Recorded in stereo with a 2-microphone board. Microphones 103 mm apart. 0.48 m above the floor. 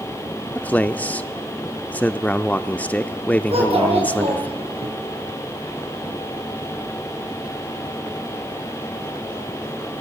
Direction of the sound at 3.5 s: 65° right (ahead or behind).